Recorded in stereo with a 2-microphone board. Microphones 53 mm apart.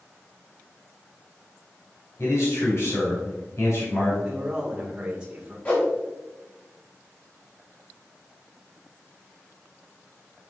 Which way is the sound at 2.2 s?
60° left (ahead or behind).